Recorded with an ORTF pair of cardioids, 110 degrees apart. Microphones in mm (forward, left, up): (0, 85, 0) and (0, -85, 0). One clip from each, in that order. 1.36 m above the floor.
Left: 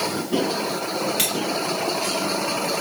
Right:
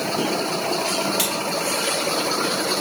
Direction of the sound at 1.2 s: 5° left.